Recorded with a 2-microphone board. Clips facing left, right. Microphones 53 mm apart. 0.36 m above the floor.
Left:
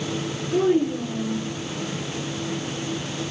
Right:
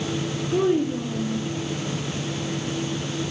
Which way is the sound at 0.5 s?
30° right (ahead or behind).